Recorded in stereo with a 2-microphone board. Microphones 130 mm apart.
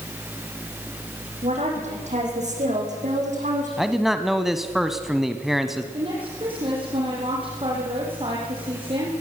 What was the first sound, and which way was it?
A woman speaking, 60° right (ahead or behind).